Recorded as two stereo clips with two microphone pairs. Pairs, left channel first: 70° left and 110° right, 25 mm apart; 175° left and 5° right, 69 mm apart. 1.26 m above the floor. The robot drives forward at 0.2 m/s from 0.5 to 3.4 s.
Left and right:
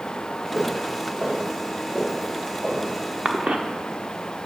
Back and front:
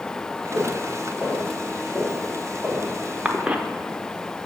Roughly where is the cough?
Right.